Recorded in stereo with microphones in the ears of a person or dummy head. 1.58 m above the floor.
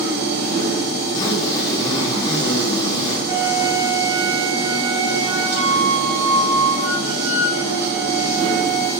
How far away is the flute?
About 5 m.